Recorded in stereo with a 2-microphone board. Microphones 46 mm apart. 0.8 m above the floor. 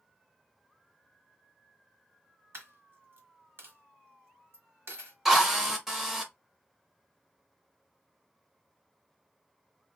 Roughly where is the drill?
Centre.